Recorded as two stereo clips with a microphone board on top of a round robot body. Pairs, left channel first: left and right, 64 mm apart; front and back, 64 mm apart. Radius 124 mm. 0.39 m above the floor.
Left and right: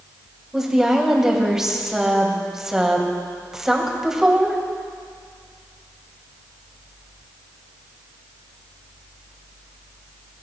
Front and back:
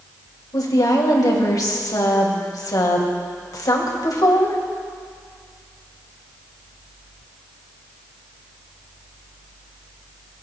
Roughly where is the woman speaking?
Ahead.